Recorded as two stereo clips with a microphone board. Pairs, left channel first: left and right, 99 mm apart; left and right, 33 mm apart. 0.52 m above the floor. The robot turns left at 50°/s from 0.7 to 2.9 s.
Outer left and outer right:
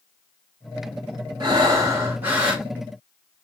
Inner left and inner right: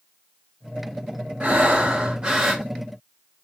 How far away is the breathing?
About 1.0 m.